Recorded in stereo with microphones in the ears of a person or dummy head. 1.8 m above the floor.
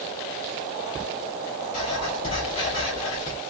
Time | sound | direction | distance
1.7 | writing | 25° left (ahead or behind) | 1.2 m